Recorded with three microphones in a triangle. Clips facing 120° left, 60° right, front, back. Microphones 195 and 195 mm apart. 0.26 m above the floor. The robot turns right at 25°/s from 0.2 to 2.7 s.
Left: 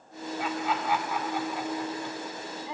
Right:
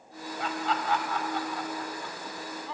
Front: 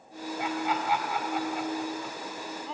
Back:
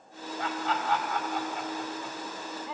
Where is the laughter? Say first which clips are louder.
Left 1 dB, front 1 dB; 45° left, 1.4 m; by 2.8 s 105° left, 1.4 m.